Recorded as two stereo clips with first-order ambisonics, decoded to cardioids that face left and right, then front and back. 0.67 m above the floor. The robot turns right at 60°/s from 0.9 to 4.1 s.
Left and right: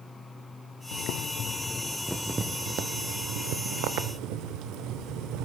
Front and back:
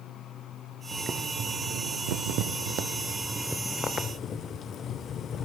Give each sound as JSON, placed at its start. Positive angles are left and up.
{"t": 0.9, "sound": "boiling", "azimuth_deg": 110, "distance_m": 0.6}